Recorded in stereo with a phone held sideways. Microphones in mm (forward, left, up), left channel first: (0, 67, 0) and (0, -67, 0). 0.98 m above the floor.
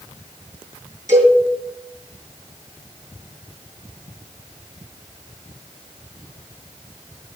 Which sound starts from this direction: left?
A cowbell, at 1.1 s.